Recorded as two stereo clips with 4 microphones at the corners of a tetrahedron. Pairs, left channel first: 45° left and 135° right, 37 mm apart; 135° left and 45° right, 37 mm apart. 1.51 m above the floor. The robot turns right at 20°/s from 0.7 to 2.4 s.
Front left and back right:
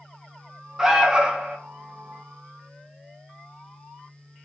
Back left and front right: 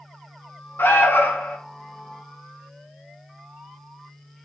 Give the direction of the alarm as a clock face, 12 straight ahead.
7 o'clock.